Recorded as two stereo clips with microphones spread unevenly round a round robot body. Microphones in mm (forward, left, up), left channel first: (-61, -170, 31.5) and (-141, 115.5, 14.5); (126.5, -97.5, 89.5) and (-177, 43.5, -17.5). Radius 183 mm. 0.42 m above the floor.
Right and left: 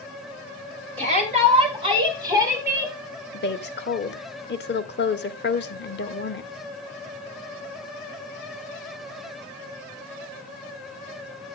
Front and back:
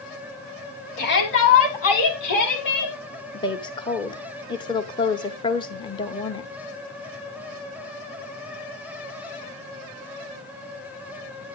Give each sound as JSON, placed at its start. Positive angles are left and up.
{"t": 1.0, "sound": "a shout", "azimuth_deg": 40, "distance_m": 5.0}
{"t": 3.3, "sound": "a woman speaking", "azimuth_deg": -115, "distance_m": 1.1}